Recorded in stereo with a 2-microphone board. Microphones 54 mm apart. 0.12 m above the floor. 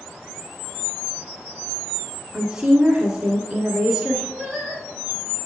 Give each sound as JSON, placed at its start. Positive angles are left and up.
{"t": 2.3, "sound": "a woman speaking", "side_deg": -10, "distance_m": 1.5}
{"t": 4.4, "sound": "singing", "side_deg": 5, "distance_m": 2.5}